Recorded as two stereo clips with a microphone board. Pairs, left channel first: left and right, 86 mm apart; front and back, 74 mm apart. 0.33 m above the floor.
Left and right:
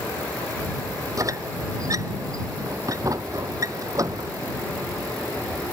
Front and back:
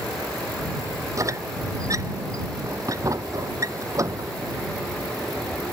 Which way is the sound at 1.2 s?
140° right.